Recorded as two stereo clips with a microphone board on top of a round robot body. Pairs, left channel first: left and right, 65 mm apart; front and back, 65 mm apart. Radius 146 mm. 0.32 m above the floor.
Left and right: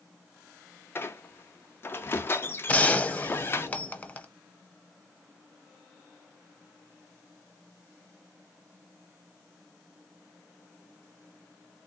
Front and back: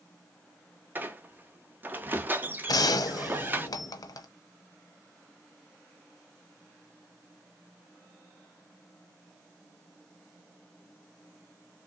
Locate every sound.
0.9 s a squeak: 130° left, 0.8 m
2.7 s a gunshot: 20° left, 0.7 m